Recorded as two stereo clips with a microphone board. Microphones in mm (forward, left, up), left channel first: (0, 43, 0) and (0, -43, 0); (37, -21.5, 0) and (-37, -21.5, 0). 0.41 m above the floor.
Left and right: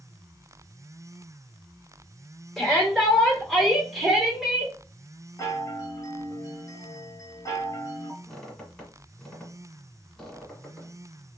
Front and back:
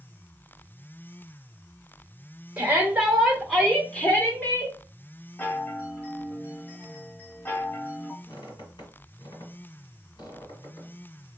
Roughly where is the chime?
Ahead left.